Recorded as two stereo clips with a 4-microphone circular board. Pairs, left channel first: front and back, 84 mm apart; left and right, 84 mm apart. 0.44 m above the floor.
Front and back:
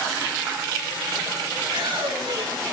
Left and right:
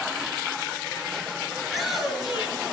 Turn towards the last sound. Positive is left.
turn(degrees=-170)